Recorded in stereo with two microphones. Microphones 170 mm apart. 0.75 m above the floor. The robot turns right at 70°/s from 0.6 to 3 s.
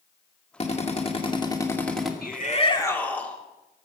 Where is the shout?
115° left, 1.5 m; by 3.4 s 170° left, 1.5 m.